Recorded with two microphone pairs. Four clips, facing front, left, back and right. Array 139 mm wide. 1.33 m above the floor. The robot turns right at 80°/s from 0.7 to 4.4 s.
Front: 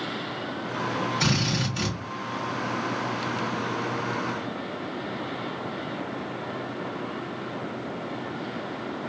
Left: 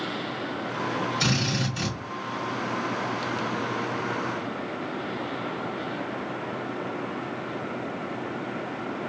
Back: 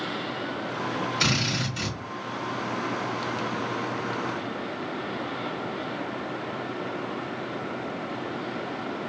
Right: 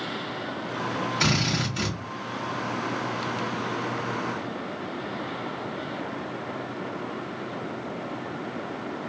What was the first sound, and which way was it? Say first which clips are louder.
A drill: right 1 dB, front 1 dB; 130° right.